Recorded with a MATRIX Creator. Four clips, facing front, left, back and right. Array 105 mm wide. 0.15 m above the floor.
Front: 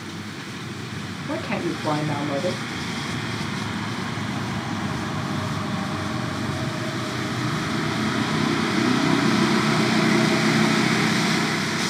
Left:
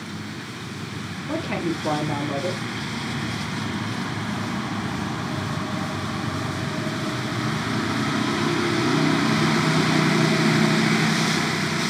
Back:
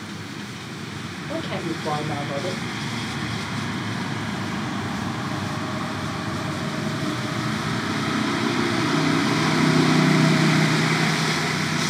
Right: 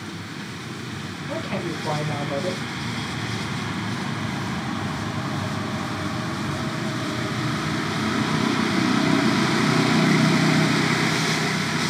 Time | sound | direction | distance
1.3 | a man speaking | 20° left | 1.6 m